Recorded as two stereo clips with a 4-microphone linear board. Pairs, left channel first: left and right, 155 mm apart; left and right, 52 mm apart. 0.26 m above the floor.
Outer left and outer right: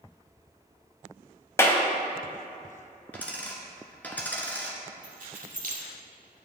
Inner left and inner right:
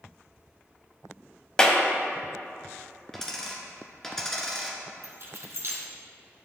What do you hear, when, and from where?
1.6 s a clap: 15° left (ahead or behind), 0.9 m
3.1 s a dropped coin: 10° left (ahead or behind), 1.2 m
5.0 s keys jangling: 60° right (ahead or behind), 1.5 m